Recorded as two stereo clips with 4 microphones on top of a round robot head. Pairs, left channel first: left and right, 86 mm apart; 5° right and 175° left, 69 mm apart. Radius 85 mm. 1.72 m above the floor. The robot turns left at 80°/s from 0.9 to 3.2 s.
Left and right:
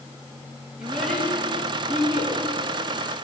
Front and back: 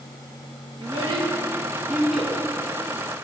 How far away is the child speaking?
About 1.9 m.